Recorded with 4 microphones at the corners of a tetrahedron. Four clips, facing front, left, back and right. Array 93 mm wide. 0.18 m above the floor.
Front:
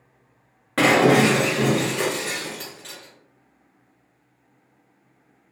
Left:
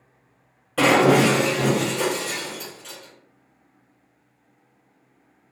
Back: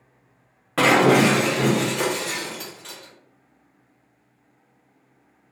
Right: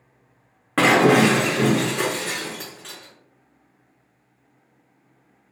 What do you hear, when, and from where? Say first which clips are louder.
0.8 s breaking glass: right 1 dB, even; 90° right, 1.6 m